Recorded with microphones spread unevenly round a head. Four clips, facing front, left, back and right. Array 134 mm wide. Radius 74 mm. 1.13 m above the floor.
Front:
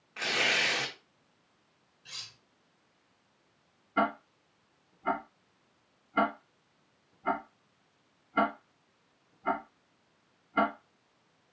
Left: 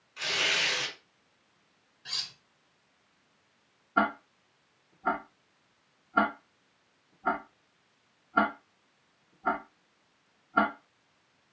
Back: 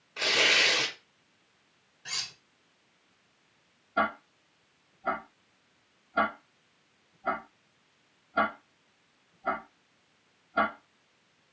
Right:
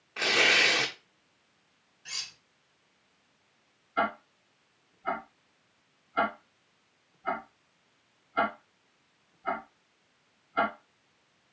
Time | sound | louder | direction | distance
0.2 | tearing paper | right 6 dB, back 3 dB | 95° right | 1.6 m
2.0 | cutlery clinking | left 1 dB, back 10 dB | 165° left | 0.6 m
4.0 | ticking | left 2 dB, even | 70° left | 2.5 m